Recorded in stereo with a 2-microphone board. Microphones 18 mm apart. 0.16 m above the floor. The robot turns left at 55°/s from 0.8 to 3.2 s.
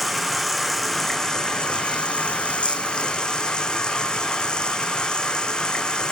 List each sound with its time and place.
0.0 s running water: straight behind, 1.9 m; by 6.1 s 45° left, 1.9 m